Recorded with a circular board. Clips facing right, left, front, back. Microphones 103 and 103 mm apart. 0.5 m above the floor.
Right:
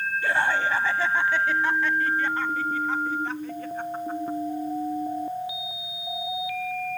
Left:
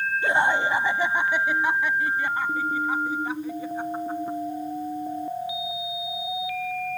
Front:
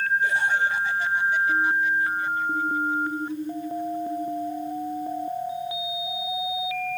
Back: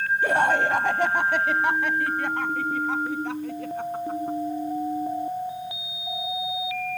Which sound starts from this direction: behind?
Laughter, at 0.2 s.